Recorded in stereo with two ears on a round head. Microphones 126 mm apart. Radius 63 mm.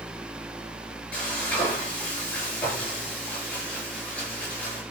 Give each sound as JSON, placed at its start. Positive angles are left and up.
{"t": 1.1, "sound": "frying", "side_deg": 10, "distance_m": 6.0}